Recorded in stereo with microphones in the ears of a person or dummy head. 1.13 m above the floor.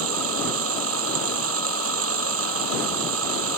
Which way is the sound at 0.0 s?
60° right (ahead or behind).